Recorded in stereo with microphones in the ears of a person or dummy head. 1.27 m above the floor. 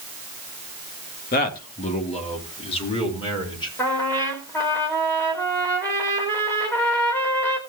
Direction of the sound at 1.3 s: 45° left (ahead or behind).